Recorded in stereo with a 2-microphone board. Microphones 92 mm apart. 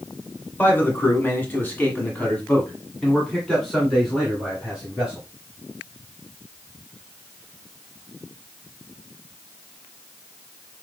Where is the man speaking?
20° left (ahead or behind), 1.8 m; by 5.3 s 5° right (ahead or behind), 2.5 m.